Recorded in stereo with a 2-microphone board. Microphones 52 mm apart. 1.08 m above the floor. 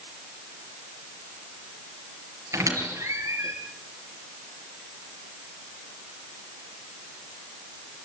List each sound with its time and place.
2.5 s a squeak: 70° right (ahead or behind), 5.5 m